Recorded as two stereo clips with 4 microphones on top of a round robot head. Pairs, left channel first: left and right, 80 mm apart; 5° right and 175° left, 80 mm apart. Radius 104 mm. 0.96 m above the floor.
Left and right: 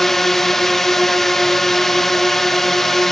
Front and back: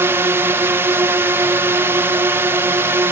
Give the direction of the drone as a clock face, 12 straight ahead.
6 o'clock.